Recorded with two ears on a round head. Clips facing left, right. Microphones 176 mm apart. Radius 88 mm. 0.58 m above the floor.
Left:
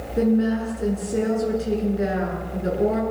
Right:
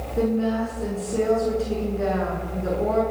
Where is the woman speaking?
20° left (ahead or behind), 9.5 m.